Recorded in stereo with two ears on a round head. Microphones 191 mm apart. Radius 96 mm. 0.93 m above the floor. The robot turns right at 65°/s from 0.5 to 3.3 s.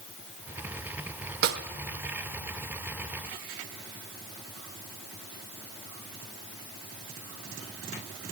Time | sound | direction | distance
1.4 | a snare drum | 50° right (ahead or behind) | 0.8 m